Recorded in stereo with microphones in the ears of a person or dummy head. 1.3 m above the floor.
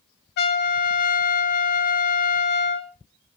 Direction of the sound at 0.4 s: 55° left (ahead or behind).